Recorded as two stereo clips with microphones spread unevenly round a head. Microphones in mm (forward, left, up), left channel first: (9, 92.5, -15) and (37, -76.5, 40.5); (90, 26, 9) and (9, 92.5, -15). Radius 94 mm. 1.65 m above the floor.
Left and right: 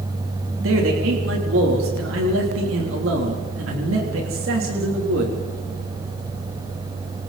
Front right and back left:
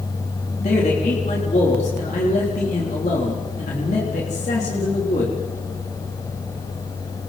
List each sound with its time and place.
0.6 s a man speaking: 80° right, 3.5 m